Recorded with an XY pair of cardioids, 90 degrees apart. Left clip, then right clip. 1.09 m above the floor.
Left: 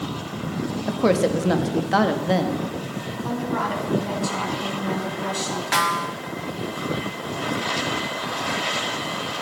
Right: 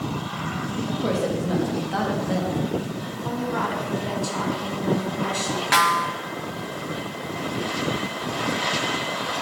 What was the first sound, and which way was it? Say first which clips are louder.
A woman speaking: left 6 dB; 70° left.